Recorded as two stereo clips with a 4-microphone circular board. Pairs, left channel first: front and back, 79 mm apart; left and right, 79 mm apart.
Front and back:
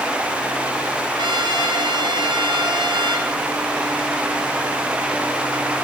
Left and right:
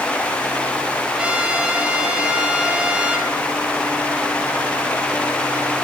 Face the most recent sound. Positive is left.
turn(degrees=-165)